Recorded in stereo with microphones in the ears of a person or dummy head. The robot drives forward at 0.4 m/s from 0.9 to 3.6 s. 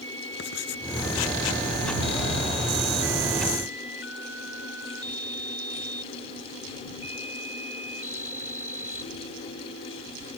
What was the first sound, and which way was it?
Writing, 60° left (ahead or behind).